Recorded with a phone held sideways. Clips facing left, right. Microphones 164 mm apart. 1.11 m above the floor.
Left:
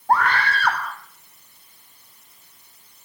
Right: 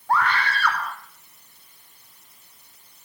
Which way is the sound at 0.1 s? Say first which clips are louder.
Left 3 dB; 45° left (ahead or behind).